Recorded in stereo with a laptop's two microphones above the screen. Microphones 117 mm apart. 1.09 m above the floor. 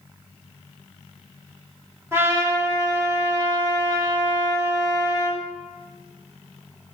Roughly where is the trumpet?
Right.